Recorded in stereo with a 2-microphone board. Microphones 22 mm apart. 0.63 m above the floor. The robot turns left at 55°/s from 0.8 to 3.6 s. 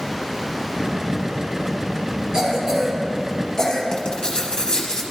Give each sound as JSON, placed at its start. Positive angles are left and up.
{"t": 2.3, "sound": "a cough", "side_deg": -40, "distance_m": 1.9}
{"t": 3.9, "sound": "writing", "side_deg": 35, "distance_m": 0.8}